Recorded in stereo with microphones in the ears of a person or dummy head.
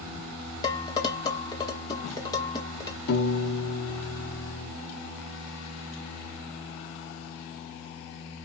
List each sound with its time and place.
0.6 s dishes clattering: 20° left (ahead or behind), 1.4 m
3.1 s a piano: 55° left (ahead or behind), 1.3 m